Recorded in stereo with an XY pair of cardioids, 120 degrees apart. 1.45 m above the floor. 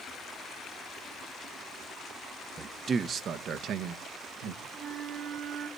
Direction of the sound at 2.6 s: 25° right.